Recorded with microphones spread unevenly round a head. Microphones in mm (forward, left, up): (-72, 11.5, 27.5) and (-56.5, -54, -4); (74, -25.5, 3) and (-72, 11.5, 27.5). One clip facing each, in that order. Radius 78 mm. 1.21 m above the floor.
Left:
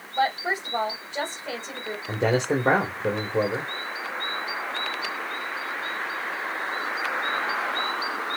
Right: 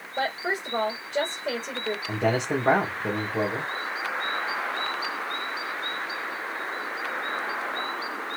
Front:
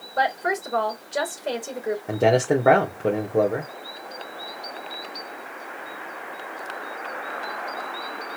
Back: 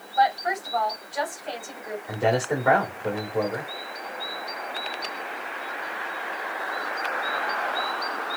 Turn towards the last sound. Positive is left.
turn(degrees=25)